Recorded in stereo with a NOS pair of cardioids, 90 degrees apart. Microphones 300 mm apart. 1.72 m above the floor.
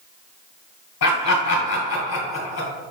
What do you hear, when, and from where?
1.0 s laughter: 60° left, 1.9 m